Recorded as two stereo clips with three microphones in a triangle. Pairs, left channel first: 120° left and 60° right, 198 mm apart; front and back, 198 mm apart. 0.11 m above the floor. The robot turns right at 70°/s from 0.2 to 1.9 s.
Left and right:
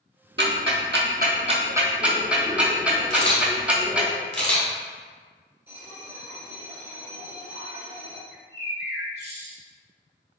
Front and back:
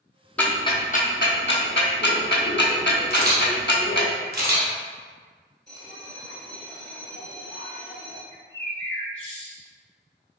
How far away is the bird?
About 2.0 m.